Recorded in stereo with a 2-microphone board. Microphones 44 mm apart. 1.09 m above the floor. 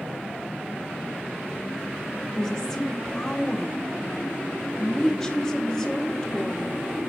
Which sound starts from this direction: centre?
A woman speaking, at 2.3 s.